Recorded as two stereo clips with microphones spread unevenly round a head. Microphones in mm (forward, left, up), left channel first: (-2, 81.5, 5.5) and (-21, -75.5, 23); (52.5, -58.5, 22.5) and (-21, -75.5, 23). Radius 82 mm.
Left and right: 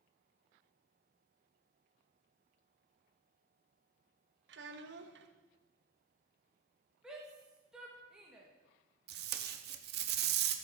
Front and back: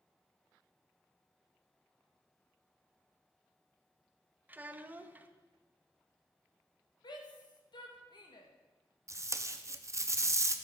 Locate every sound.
4.5 s a child speaking: 100° right, 1.1 m
7.0 s a shout: 10° right, 1.6 m
9.1 s tape being pulled: 120° right, 0.9 m